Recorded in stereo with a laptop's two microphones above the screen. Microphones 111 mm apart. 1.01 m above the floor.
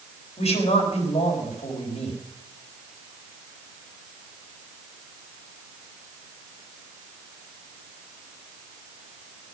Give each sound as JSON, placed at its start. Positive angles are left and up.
{"t": 0.4, "sound": "a man speaking", "side_deg": 75, "distance_m": 4.0}